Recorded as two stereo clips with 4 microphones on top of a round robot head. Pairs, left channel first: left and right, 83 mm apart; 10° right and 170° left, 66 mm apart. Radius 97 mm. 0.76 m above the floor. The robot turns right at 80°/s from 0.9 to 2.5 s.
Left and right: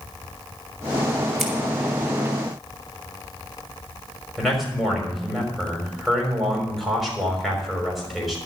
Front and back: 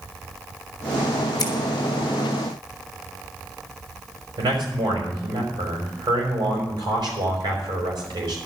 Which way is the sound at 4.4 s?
Straight behind.